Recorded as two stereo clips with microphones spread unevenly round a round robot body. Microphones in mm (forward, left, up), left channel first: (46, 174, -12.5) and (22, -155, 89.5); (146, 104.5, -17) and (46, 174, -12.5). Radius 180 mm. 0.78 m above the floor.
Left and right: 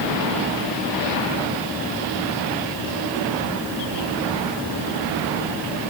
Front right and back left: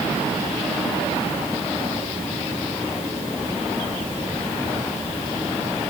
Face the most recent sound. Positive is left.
No sound to turn to.